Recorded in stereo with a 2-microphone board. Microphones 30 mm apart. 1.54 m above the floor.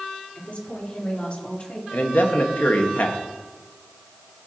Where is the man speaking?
75° left (ahead or behind), 1.5 m.